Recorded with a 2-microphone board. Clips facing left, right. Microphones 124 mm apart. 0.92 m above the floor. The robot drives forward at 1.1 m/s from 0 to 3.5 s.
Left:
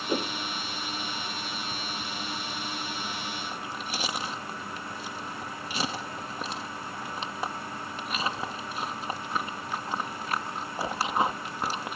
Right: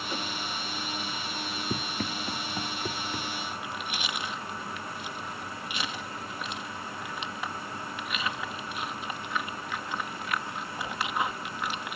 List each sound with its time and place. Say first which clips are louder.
0.1 s a whoosh: left 8 dB; 40° left (ahead or behind); by 0.3 s 35° left (ahead or behind)
1.7 s running footsteps: right 3 dB; 75° right (ahead or behind); by 3.3 s 80° right
3.5 s chewing: left 1 dB; 35° left (ahead or behind)